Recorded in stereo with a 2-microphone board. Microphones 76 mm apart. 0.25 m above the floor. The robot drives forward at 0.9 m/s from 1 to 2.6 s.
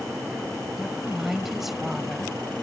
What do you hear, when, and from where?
0.8 s a woman speaking: 5° right (ahead or behind)